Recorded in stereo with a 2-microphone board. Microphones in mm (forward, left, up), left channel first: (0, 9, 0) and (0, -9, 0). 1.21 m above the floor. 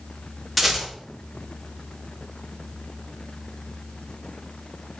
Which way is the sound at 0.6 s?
5° left (ahead or behind).